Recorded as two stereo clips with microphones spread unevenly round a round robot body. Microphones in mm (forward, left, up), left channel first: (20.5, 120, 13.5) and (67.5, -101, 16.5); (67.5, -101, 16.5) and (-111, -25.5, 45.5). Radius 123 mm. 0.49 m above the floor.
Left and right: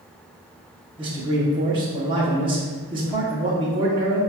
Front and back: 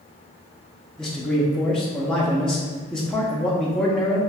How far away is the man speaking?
About 0.8 m.